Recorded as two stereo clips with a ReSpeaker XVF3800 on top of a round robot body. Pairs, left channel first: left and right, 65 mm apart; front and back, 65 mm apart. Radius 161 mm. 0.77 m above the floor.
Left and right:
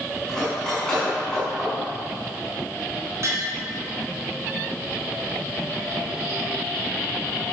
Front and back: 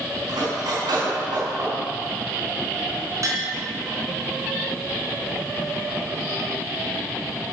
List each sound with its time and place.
0.3 s cutlery clinking: 170° left, 5.5 m
3.2 s tapping: 140° right, 3.5 m